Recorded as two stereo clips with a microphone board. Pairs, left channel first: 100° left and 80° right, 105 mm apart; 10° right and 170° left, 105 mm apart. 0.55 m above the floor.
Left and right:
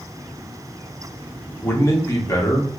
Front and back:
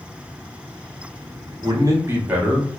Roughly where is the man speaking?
Behind left.